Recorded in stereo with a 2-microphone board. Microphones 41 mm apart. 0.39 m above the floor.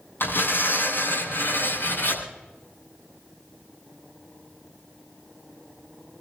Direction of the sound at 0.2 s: 55° left (ahead or behind).